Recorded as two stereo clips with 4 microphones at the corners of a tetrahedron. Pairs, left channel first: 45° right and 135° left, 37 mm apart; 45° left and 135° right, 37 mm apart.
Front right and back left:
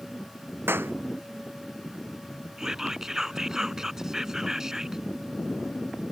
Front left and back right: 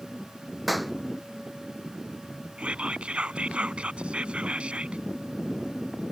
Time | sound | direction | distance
0.7 | a clap | 135° left | ?
2.6 | whispering | 160° right | ?